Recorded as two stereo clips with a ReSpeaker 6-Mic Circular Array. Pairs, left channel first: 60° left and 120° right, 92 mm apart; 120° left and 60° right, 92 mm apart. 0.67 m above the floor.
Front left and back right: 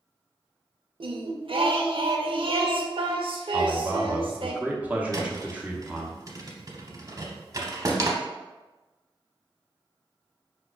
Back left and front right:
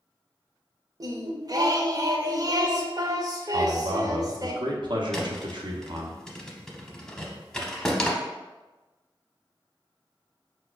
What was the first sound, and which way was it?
Singing, 105° right.